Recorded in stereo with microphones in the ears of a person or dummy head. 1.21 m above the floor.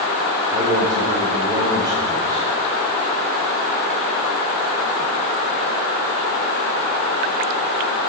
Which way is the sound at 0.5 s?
20° right (ahead or behind).